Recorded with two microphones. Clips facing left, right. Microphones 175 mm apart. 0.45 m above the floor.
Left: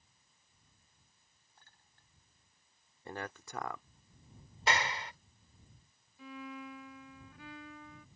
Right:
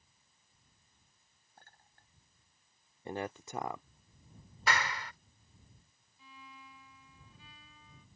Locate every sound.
1.6 s a clink: 50° right (ahead or behind)
3.0 s a man speaking: 20° right (ahead or behind)
4.7 s a clap: 25° left (ahead or behind)
6.2 s a violin: 75° left (ahead or behind)